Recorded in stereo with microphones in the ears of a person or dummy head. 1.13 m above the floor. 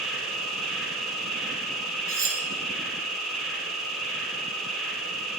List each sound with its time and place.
0.0 s an insect: 5° left (ahead or behind), 4.5 m
2.1 s cutlery clinking: 15° right (ahead or behind), 2.5 m